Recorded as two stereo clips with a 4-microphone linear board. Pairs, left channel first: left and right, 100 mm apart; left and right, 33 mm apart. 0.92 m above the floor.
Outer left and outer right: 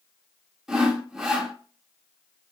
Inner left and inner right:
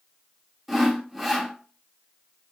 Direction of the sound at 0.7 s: 5° right (ahead or behind).